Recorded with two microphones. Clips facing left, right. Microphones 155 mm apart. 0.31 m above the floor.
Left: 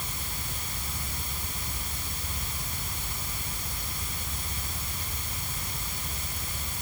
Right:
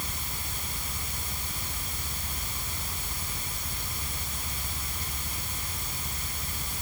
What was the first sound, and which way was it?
Only background noise.